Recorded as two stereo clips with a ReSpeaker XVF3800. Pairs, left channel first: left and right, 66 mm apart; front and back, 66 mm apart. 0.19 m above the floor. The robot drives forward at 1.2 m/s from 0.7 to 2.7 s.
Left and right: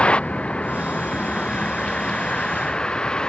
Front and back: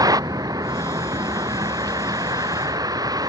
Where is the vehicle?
165° left.